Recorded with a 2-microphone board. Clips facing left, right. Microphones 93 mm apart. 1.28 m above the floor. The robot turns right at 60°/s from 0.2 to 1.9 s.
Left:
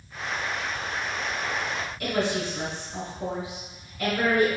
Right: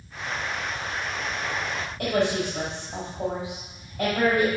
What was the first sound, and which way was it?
A woman speaking, 80° right.